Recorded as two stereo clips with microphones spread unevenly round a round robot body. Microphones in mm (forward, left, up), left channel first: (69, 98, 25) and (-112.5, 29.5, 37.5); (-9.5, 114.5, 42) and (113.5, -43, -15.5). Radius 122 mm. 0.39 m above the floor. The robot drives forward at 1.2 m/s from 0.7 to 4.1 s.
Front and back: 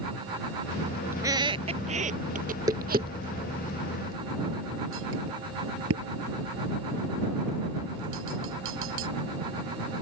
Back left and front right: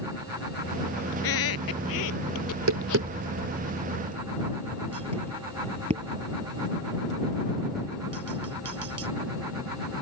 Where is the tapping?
75° right; by 9.1 s 120° right.